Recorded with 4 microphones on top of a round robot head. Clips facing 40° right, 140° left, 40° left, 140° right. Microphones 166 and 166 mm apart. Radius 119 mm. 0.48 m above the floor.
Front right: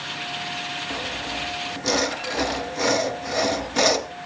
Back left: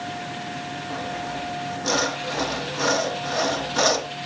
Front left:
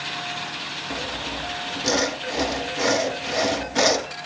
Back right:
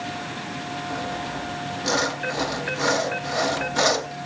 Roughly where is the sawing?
Ahead.